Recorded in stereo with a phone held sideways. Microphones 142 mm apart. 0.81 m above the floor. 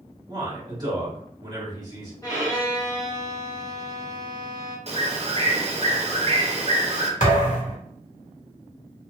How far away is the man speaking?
About 1.5 m.